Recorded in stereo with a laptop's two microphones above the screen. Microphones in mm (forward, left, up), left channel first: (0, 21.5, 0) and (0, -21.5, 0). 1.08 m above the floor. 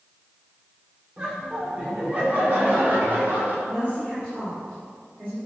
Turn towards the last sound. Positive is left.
turn(degrees=-35)  # may be behind; listen again after turning